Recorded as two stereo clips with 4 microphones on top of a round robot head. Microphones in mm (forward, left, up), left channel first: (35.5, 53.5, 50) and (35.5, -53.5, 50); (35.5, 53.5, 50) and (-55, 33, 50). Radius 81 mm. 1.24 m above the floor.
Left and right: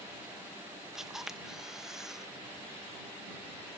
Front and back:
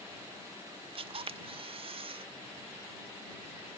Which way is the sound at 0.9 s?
175° right.